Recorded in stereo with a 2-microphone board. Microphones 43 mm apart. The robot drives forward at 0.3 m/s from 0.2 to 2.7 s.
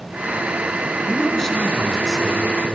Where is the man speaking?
10° left (ahead or behind), 4 m.